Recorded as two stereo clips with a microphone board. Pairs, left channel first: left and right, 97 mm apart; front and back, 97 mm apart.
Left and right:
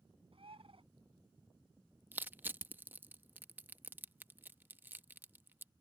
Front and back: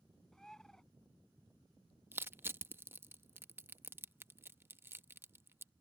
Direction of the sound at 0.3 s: 85° right.